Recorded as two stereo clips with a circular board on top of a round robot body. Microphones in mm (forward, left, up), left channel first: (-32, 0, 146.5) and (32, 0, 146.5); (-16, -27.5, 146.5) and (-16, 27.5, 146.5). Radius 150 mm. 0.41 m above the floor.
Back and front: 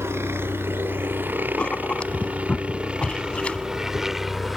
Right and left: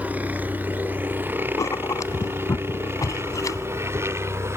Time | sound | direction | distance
0.0 | a helicopter | 40° left | ?
1.6 | writing | 105° right | ?